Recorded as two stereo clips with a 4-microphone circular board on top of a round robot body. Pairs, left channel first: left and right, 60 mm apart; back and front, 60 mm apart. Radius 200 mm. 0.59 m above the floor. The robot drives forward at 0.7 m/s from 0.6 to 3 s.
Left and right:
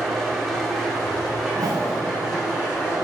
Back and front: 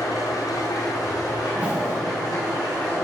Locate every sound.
0.0 s an engine running: 175° left, 1.5 m
1.5 s a whoosh: 60° right, 0.5 m; by 2.0 s 105° right, 0.5 m